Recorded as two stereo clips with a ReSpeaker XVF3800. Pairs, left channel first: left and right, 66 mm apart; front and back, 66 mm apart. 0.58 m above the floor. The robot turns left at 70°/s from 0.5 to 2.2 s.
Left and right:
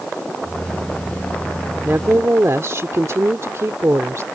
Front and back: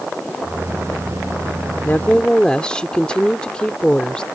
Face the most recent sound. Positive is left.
turn(degrees=-70)